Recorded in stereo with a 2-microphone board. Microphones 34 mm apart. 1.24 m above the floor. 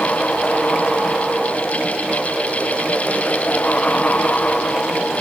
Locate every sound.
Only background noise.